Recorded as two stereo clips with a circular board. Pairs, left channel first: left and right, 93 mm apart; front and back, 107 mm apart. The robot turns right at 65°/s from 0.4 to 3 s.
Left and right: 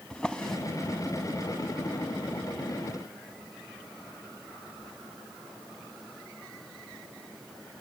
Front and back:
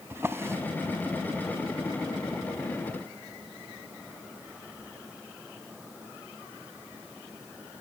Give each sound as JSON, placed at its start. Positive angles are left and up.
{"t": 0.1, "sound": "a drawer", "azimuth_deg": 160, "distance_m": 0.7}